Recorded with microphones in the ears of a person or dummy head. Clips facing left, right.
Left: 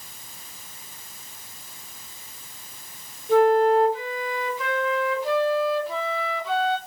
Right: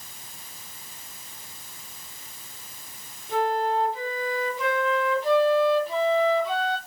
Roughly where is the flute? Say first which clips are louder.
Left 8 dB; centre.